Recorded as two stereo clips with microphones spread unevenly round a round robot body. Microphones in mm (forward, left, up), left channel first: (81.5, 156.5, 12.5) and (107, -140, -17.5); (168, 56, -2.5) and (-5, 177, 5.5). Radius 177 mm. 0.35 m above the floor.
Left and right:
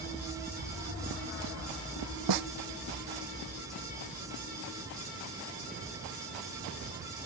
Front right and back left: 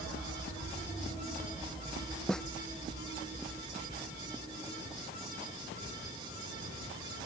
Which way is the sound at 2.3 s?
125° right.